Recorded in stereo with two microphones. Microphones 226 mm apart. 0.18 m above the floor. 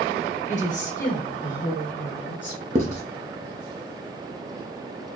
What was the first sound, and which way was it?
A woman speaking, 35° left (ahead or behind).